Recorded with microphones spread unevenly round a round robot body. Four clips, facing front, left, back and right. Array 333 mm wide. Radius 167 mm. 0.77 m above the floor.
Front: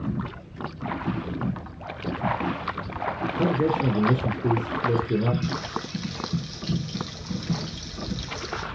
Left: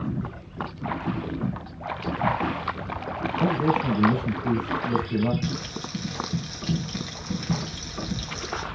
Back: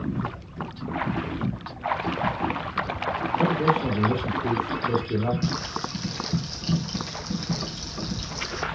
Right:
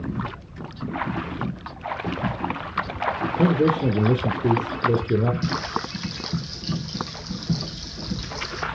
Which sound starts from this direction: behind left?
Frying, at 5.4 s.